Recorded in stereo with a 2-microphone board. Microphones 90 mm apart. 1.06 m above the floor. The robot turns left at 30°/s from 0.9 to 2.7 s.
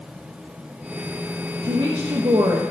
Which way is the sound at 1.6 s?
60° right (ahead or behind).